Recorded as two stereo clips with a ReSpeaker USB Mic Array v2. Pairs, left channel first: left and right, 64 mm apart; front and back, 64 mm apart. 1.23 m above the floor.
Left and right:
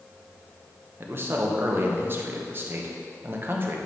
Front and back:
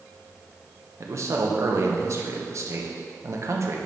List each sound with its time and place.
1.0 s a man speaking: 145° right, 0.9 m